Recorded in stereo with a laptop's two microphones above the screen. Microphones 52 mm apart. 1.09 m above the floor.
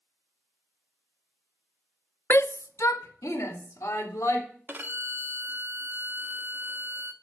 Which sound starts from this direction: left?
A shout, at 2.3 s.